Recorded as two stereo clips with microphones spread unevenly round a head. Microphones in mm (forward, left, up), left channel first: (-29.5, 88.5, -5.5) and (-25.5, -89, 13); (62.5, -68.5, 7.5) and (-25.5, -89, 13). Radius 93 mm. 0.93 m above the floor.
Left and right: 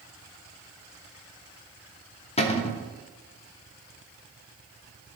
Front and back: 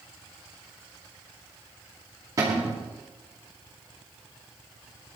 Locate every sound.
2.4 s a cupboard door: 130° left, 1.2 m